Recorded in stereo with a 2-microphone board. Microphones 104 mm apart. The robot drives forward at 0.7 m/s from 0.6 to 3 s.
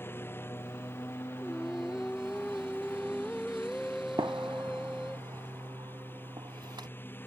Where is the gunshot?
45° right (ahead or behind).